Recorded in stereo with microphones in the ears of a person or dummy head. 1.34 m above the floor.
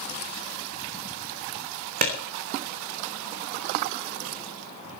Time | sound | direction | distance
2.0 | a clap | 45° right (ahead or behind) | 3 m